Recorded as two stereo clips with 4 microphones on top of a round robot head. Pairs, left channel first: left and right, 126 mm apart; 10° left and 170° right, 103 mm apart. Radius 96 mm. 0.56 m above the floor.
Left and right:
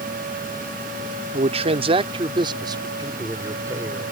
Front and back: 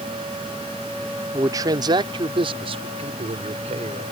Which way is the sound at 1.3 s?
110° right.